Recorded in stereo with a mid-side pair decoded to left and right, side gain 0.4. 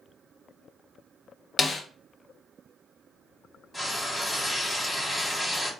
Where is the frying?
15° left, 1.7 m.